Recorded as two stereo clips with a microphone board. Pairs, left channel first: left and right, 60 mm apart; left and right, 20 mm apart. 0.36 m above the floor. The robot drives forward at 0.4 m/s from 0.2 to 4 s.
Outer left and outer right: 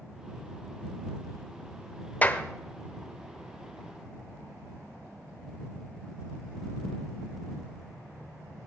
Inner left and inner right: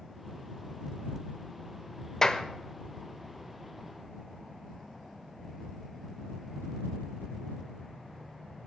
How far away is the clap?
About 1.0 m.